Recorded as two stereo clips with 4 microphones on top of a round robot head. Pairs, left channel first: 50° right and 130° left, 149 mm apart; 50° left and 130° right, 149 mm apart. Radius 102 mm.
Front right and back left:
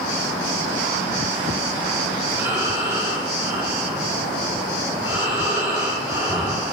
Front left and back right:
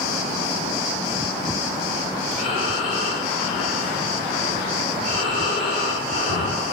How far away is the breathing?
About 6.5 m.